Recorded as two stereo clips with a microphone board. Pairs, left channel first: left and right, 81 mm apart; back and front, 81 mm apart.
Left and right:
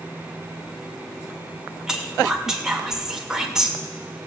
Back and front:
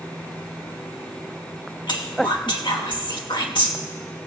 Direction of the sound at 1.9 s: 175° right.